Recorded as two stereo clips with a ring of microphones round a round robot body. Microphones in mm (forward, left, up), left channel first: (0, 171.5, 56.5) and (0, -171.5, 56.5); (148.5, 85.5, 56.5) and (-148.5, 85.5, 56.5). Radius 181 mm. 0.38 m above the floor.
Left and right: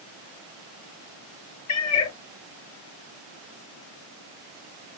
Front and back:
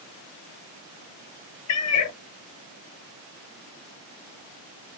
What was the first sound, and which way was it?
A cat meowing, 40° left.